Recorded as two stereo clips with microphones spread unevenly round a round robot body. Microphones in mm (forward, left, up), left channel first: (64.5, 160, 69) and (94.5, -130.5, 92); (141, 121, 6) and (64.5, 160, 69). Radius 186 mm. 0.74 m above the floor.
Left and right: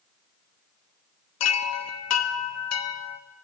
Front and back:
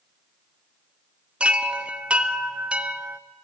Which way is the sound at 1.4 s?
60° left.